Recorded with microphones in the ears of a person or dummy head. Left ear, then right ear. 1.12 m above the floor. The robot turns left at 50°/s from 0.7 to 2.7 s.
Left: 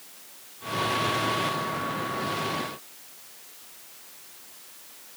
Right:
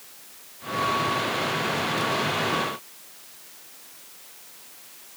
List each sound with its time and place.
Only background noise.